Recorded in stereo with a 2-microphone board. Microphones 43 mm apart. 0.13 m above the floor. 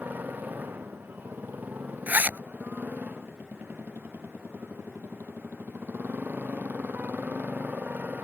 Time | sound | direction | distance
0.0 | a motorcycle | 45° right (ahead or behind) | ?
2.1 | a zipper | 45° right (ahead or behind) | ?